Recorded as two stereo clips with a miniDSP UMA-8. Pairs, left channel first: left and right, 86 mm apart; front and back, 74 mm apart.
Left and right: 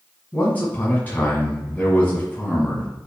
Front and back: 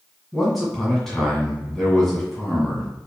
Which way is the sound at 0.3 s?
80° left.